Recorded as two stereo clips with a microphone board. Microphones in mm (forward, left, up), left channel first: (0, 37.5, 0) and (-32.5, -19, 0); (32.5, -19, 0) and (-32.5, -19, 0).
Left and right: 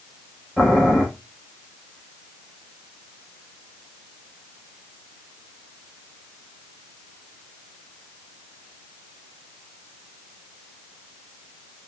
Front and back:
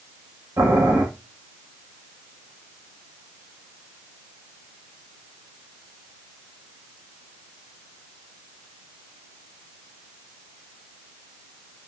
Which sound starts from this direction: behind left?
Boiling, at 0.6 s.